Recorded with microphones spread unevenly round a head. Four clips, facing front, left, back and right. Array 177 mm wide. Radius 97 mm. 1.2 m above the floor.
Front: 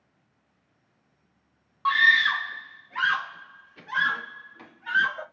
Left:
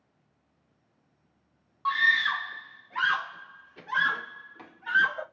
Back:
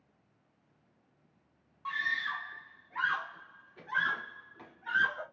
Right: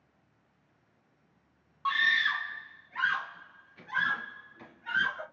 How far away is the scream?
About 0.6 m.